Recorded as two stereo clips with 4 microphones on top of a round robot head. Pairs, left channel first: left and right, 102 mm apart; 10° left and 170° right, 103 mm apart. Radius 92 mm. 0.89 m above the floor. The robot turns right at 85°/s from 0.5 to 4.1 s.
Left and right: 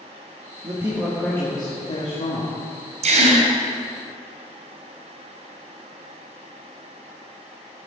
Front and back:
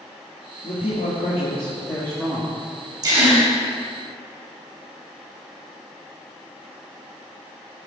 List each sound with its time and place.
0.6 s a man speaking: 40° right, 2 m; by 2.5 s 120° left, 2 m
3.0 s a gasp: 115° right, 2.5 m; by 3.5 s 80° right, 2.5 m